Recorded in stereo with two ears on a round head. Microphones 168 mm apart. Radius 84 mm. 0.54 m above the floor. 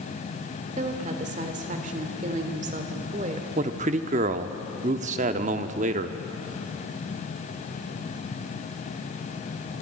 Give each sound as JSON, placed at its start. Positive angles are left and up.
{"t": 0.8, "sound": "a woman speaking", "side_deg": -40, "distance_m": 2.0}
{"t": 3.6, "sound": "a man speaking", "side_deg": -40, "distance_m": 0.8}